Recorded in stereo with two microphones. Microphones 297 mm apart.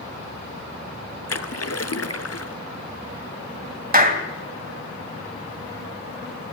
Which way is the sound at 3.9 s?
30° right (ahead or behind).